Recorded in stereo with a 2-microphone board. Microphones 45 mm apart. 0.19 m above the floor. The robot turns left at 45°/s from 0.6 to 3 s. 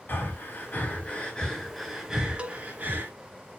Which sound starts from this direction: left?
Breathing, at 0.1 s.